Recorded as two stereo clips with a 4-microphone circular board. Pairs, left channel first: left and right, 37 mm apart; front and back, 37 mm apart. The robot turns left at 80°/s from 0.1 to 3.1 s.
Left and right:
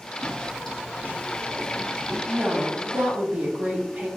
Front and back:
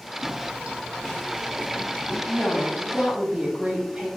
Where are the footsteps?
125° right, 0.8 m; by 2.2 s 45° right, 1.3 m.